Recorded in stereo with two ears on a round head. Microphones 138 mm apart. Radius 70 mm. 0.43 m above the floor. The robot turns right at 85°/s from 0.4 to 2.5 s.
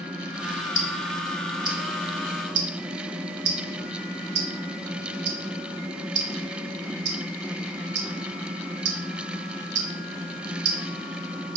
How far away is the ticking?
About 0.6 m.